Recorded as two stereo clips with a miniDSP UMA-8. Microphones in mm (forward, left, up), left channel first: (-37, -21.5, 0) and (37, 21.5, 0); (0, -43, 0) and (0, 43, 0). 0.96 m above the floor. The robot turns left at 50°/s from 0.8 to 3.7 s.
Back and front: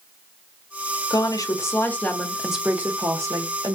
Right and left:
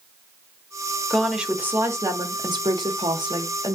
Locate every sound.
1.1 s a woman speaking: 175° right, 1.2 m; by 3.8 s 55° left, 1.2 m